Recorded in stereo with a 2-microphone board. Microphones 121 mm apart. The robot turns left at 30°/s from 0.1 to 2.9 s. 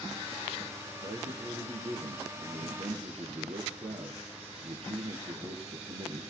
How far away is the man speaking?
About 4 m.